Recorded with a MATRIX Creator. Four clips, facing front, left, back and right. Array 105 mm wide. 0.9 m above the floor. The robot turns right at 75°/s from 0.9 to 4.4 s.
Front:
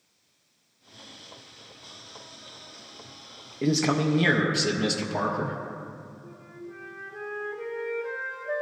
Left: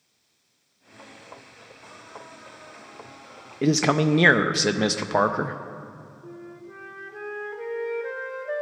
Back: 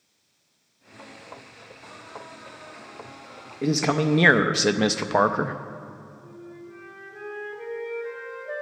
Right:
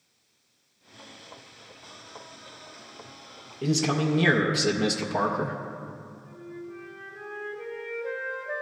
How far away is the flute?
About 1.1 m.